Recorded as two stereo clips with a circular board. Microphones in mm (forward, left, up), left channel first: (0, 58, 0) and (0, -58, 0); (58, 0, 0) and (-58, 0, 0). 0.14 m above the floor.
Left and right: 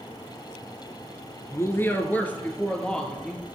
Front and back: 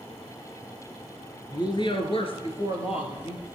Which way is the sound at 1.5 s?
35° left.